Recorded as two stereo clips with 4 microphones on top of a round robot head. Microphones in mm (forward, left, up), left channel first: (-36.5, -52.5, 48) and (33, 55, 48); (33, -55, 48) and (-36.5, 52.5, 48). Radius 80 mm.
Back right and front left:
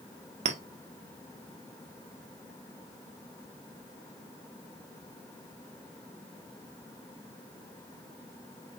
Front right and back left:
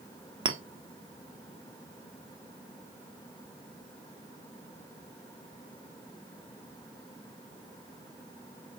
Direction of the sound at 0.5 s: 75° left.